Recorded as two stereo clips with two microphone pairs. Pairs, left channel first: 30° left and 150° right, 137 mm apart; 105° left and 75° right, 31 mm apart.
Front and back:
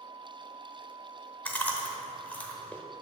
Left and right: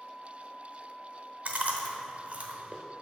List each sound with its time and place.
1.4 s chewing: 50° right, 0.8 m